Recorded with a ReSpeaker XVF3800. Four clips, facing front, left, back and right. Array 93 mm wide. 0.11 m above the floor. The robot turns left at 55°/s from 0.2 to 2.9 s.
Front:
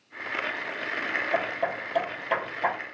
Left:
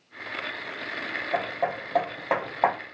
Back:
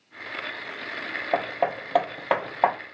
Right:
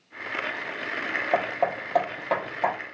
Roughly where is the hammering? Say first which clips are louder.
Right 2 dB, back 7 dB; behind right.